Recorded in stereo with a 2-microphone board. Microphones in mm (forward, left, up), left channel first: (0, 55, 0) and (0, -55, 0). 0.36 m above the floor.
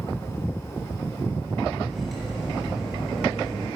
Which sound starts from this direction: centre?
Cutlery clinking, at 1.9 s.